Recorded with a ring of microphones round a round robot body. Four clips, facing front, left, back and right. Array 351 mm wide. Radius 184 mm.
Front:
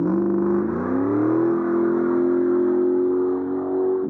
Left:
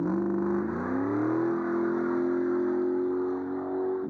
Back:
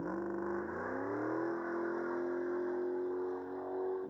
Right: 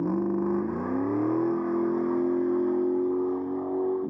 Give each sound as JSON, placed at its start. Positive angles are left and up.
{"t": 0.0, "sound": "a vehicle", "azimuth_deg": -10}